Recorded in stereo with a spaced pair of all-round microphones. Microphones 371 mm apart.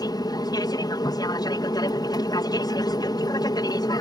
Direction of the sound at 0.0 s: 10° left (ahead or behind).